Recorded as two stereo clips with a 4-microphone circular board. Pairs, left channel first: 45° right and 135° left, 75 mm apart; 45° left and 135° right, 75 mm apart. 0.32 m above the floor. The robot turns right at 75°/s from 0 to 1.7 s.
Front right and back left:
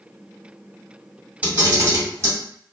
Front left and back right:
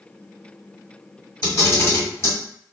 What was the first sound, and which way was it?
A camera shutter, 70° left.